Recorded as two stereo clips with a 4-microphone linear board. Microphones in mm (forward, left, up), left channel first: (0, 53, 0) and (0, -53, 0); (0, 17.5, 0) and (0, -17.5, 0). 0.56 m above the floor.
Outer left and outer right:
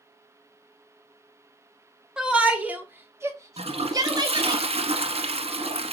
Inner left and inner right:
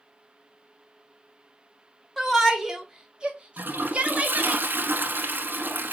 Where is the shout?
5° right (ahead or behind), 1.6 m; by 4.6 s 45° right (ahead or behind), 1.5 m.